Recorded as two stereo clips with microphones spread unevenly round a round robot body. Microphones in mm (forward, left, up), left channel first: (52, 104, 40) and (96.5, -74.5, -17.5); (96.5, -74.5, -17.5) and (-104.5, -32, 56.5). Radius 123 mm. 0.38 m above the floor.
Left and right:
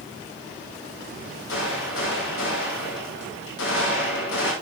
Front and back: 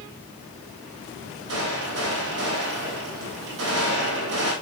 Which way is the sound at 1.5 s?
125° left.